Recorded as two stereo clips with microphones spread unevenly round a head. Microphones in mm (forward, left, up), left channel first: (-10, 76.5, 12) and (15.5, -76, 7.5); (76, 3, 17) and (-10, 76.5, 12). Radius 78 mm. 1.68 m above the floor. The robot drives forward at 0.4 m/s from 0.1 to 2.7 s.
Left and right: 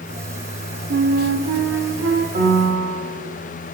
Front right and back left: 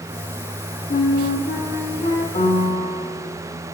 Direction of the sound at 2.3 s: 50° right.